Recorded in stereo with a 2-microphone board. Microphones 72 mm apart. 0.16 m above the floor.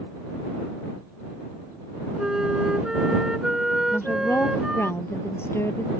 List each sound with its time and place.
2.2 s a flute: 10° right (ahead or behind)
3.9 s a woman speaking: 40° left (ahead or behind)